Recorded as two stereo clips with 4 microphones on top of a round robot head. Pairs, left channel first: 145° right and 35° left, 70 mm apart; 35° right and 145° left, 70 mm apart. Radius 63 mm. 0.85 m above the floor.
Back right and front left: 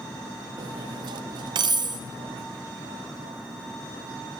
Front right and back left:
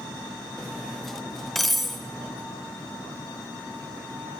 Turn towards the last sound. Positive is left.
turn(degrees=55)